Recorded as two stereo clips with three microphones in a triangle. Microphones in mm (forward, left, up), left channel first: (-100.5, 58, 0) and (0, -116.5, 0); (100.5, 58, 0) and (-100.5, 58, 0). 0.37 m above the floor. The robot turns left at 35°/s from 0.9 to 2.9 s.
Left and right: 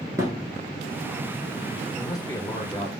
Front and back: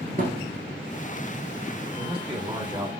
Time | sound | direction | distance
0.2 | a thud | 135° right | 1.0 m
1.9 | a man speaking | 175° left | 1.2 m